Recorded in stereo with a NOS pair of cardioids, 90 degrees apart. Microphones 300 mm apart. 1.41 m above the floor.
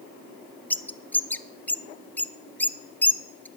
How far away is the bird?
About 0.6 m.